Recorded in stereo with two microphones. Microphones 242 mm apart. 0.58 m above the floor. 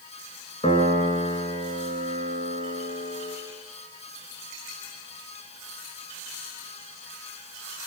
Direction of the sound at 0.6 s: 25° left (ahead or behind).